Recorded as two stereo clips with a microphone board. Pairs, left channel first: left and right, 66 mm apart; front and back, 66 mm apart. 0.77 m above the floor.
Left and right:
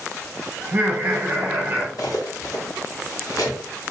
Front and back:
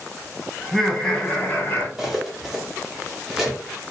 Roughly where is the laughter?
Right.